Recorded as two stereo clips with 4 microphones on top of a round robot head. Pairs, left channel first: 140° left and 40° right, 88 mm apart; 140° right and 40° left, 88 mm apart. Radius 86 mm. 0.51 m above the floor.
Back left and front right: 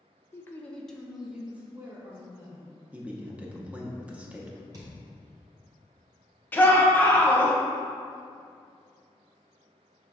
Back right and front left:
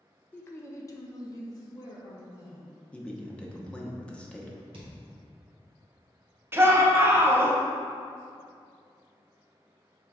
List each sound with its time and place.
0.3 s a woman speaking: 170° left, 0.8 m; by 2.7 s 95° right, 1.8 m
2.9 s a man speaking: 85° right, 0.8 m
4.7 s a thud: 10° left, 1.4 m
6.5 s a shout: 85° left, 0.9 m